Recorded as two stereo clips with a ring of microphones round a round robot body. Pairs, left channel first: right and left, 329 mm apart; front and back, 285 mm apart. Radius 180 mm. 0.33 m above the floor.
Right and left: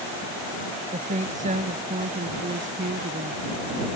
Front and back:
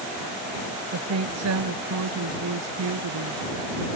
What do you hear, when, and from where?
0.9 s a woman speaking: 160° left; by 3.4 s 155° left